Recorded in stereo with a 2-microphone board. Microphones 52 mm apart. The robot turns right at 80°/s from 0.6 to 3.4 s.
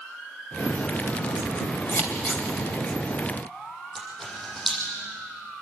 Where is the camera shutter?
5° left (ahead or behind), 7 m.